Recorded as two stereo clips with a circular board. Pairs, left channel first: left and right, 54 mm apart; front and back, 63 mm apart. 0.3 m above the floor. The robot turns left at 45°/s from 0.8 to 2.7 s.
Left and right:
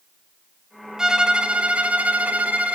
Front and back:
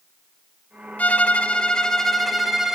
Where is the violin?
25° right, 0.6 m; by 2.8 s 100° right, 0.6 m.